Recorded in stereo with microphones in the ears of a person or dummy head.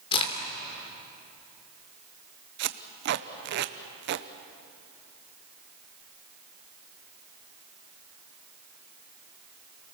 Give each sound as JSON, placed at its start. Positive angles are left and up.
{"t": 0.1, "sound": "a crack", "side_deg": 30, "distance_m": 3.0}
{"t": 2.6, "sound": "tape being pulled", "side_deg": -55, "distance_m": 0.8}